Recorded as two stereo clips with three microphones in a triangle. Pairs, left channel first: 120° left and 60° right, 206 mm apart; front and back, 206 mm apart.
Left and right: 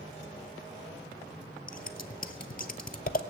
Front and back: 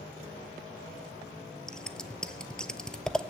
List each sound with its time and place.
1.7 s scissors: 85° left, 0.7 m